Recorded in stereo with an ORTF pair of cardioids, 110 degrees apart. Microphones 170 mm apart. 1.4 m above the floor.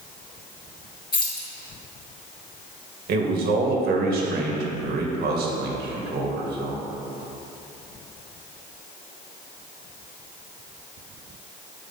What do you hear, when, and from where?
1.1 s keys jangling: 25° left, 2.5 m
3.1 s a man speaking: 65° right, 1.9 m